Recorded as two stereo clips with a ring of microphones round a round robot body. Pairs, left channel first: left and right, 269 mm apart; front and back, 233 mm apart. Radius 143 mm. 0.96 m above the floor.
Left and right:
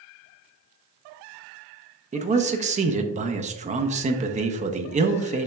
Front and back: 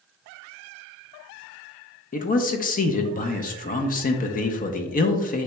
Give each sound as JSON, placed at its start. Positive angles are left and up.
{"t": 2.1, "sound": "a man speaking", "azimuth_deg": -35, "distance_m": 0.6}